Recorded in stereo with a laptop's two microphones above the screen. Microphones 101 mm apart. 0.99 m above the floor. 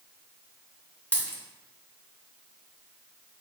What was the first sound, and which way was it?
A dropped coin, 15° left (ahead or behind).